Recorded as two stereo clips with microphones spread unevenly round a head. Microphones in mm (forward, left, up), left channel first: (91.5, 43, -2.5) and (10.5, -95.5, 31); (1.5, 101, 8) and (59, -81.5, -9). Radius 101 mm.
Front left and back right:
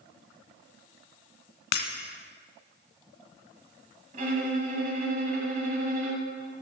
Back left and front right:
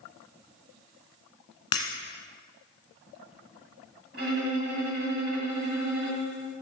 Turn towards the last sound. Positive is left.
turn(degrees=-110)